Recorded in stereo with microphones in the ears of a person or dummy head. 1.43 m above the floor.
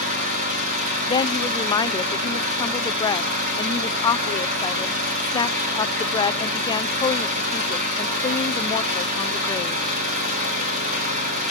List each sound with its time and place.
0.0 s an engine running: 40° right (ahead or behind), 6 m
1.1 s a woman speaking: 25° left (ahead or behind), 0.5 m